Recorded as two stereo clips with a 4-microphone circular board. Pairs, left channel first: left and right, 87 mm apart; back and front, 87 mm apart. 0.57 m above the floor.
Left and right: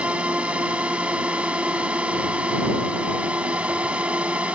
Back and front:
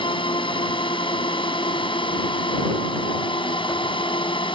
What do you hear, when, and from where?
0.0 s a drone: 165° right